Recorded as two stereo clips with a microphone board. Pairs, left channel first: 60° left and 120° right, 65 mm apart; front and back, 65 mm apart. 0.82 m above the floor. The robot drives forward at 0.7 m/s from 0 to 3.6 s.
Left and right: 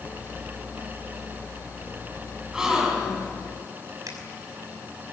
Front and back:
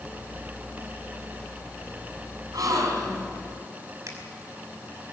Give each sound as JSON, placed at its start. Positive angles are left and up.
{"t": 2.5, "sound": "a gasp", "azimuth_deg": 160, "distance_m": 4.5}
{"t": 4.1, "sound": "a finger snap", "azimuth_deg": -145, "distance_m": 5.5}